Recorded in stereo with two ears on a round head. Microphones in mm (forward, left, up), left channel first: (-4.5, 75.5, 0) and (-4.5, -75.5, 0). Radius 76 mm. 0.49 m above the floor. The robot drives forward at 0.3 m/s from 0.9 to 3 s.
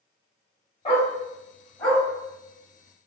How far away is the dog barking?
About 1.1 m.